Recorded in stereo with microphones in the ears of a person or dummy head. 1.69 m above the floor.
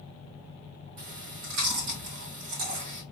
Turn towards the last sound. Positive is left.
turn(degrees=-55)  # may be behind; listen again after turning